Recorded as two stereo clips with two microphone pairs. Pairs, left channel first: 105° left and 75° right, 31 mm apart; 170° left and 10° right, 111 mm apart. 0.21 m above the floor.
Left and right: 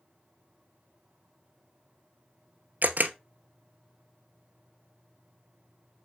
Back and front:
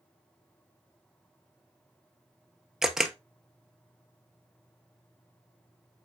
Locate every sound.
2.8 s a camera shutter: 95° right, 1.0 m